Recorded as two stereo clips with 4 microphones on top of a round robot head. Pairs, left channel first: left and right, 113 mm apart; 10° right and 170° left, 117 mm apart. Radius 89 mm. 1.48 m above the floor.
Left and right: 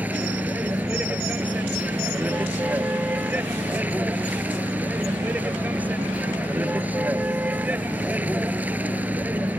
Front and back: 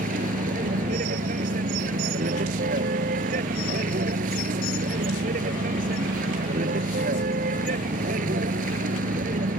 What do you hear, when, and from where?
0.0 s a vehicle: 165° right